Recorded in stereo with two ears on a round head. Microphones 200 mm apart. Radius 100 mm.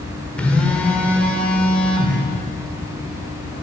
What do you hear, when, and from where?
0.4 s a phone buzzing: 5° left (ahead or behind), 0.9 m